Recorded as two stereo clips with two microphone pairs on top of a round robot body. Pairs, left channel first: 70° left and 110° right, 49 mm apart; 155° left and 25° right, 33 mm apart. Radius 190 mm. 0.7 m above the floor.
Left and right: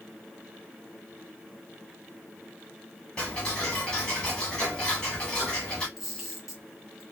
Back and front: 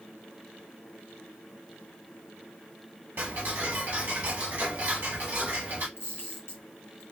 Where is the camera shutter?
165° left, 1.0 m.